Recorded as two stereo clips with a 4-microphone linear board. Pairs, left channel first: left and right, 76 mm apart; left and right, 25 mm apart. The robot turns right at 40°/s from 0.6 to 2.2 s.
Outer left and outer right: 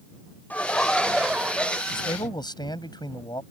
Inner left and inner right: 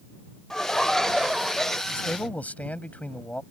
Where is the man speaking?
80° left; by 3.4 s 75° left (ahead or behind).